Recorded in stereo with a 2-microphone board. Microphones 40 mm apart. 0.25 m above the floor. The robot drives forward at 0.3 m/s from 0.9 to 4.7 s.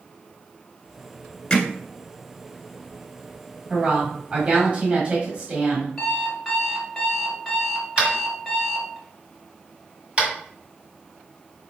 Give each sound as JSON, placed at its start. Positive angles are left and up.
{"t": 1.5, "sound": "hammering", "side_deg": 20, "distance_m": 1.4}
{"t": 3.7, "sound": "a woman speaking", "side_deg": -30, "distance_m": 1.2}
{"t": 6.0, "sound": "an alarm clock", "side_deg": 0, "distance_m": 1.8}
{"t": 8.0, "sound": "tapping", "side_deg": -25, "distance_m": 1.8}